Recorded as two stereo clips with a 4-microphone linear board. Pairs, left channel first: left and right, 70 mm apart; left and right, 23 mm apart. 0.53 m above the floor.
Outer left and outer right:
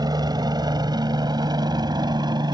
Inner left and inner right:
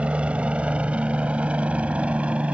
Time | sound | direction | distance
0.0 | a helicopter | 60° right (ahead or behind) | ?